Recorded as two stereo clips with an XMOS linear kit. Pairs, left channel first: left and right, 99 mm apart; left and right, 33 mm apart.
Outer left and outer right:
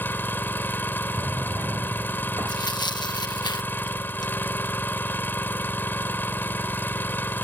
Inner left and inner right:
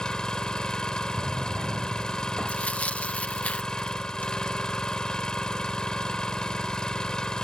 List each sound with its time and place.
0.0 s an engine running: 20° left (ahead or behind)
1.2 s a drawer: 35° right (ahead or behind)
2.5 s tearing paper: 50° left (ahead or behind)